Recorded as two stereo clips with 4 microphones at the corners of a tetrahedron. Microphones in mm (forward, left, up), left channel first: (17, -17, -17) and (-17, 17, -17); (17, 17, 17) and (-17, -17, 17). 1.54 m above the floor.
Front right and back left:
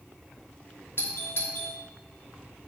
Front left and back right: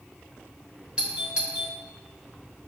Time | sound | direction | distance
1.0 | a doorbell | 70° right | 1.3 m